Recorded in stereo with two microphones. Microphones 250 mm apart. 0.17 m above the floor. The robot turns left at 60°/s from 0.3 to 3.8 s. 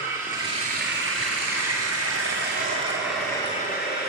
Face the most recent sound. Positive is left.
turn(degrees=145)